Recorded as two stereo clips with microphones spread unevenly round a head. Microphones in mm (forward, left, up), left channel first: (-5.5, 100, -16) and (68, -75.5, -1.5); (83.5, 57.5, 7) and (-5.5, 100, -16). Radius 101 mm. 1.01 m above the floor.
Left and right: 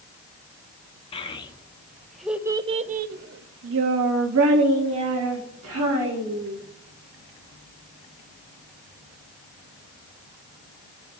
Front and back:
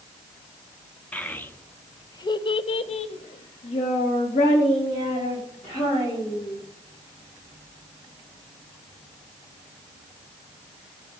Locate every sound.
1.1 s a child speaking: 50° left, 1.0 m; by 6.5 s 90° right, 1.9 m